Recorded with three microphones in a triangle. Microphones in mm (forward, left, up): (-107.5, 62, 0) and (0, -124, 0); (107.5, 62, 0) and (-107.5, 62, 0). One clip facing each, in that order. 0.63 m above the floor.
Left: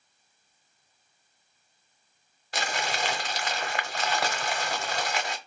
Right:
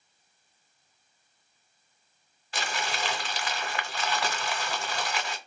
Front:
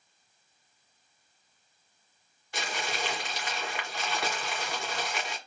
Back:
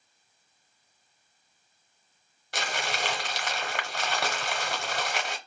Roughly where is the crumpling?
Behind.